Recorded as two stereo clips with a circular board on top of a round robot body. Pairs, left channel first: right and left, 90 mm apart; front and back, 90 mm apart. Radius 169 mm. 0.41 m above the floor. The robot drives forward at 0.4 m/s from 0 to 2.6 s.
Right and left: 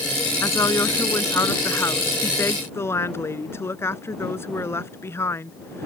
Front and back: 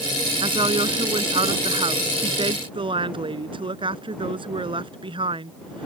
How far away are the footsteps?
I don't hear footsteps.